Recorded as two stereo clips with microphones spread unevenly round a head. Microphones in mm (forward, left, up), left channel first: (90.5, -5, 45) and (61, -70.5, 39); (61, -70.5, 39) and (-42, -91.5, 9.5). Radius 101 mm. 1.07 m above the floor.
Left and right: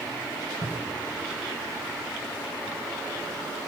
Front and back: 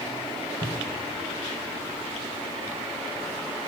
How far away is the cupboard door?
About 5 m.